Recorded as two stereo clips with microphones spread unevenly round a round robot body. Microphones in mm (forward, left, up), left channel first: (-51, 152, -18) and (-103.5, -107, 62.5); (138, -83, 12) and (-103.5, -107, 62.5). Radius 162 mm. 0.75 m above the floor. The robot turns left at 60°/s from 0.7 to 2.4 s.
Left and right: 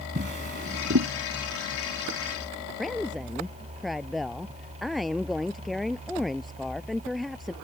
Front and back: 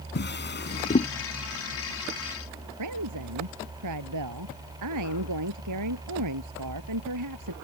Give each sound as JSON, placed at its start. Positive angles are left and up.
{"t": 0.1, "sound": "a drawer", "azimuth_deg": -40}
{"t": 2.8, "sound": "a woman speaking", "azimuth_deg": 170}